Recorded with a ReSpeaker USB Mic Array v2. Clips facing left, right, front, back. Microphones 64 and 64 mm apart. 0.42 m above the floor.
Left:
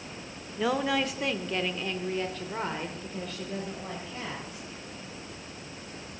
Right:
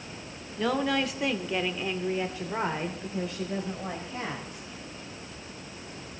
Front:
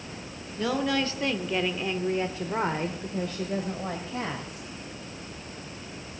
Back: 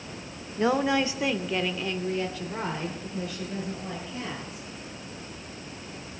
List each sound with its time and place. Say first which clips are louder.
0.6 s a woman speaking: even, back 3 dB; 170° left, 1.0 m; by 4.7 s 20° right, 2 m